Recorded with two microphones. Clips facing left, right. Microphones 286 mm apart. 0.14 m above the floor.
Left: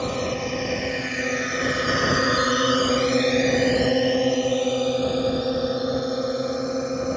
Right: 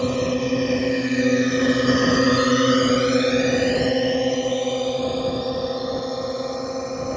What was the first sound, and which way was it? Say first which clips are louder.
A drone: right 5 dB; 40° right (ahead or behind).